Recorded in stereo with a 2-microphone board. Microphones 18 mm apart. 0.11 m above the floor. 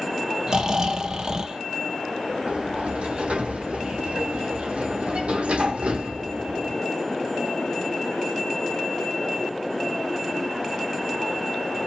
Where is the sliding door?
75° right (ahead or behind), 1.0 m.